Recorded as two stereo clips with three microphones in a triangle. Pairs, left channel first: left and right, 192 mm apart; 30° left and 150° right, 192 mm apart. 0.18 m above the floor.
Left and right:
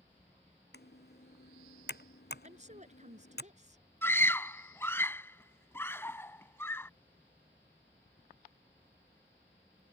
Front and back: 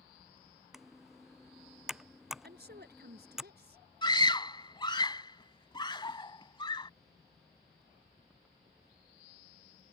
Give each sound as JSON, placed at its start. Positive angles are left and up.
{"t": 0.7, "sound": "typing on a keyboard", "azimuth_deg": 120}
{"t": 2.4, "sound": "a woman speaking", "azimuth_deg": -135}
{"t": 4.0, "sound": "a scream", "azimuth_deg": 30}